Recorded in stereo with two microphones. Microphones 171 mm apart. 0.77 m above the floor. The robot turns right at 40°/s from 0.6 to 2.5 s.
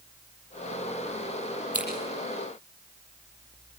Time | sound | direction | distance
1.7 | scissors | 10° right (ahead or behind) | 8 m